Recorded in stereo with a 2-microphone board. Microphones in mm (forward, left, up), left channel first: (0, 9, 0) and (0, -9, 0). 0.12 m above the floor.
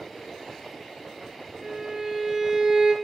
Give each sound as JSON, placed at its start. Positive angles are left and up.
{"t": 1.6, "sound": "a violin", "side_deg": -45, "distance_m": 0.6}